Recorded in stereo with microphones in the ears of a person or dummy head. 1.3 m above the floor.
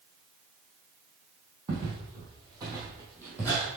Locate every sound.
1.7 s footsteps: 35° right (ahead or behind), 3 m; by 3.6 s 10° right (ahead or behind), 2.5 m